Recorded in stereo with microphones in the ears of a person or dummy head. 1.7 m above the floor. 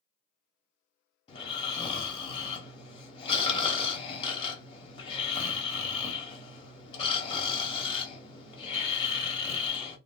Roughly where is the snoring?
Left.